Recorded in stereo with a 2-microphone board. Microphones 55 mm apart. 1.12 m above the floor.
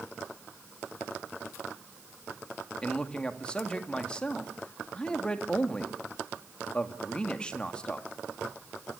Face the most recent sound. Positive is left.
turn(degrees=15)  # may be behind; listen again after turning